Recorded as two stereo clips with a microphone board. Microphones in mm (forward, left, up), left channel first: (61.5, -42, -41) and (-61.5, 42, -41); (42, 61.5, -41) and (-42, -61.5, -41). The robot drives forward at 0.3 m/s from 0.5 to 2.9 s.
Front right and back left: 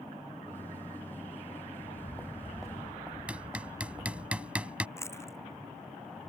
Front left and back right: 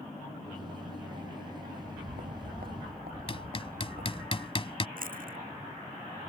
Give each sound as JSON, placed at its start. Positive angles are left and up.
{"t": 1.7, "sound": "footsteps", "azimuth_deg": -105}
{"t": 3.3, "sound": "hammering", "azimuth_deg": 70}
{"t": 5.0, "sound": "chewing", "azimuth_deg": -105}